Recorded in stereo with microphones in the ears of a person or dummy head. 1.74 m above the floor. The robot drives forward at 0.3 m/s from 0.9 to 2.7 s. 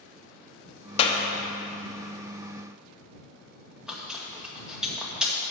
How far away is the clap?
About 1.0 m.